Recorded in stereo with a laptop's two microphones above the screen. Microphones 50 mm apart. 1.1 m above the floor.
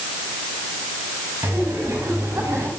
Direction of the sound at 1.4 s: 60° right (ahead or behind).